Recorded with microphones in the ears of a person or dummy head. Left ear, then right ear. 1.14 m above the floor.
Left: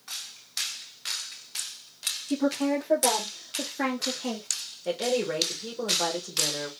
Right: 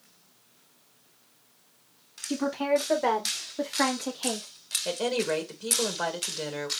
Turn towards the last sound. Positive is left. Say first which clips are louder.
# left 1 dB
turn(degrees=-50)  # may be behind; listen again after turning